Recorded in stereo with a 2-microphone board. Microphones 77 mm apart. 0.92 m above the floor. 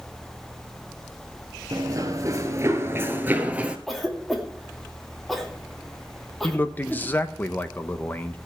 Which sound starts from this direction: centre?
A cough, at 3.9 s.